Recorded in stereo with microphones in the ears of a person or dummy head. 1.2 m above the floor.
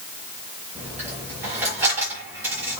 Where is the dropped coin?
10° right (ahead or behind), 7 m.